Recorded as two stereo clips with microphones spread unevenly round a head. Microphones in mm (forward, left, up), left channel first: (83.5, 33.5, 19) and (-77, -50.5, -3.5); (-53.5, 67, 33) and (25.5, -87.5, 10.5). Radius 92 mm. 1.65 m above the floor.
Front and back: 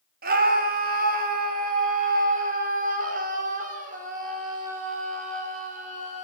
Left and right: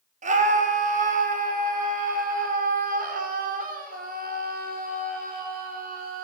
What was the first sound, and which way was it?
A scream, 110° right.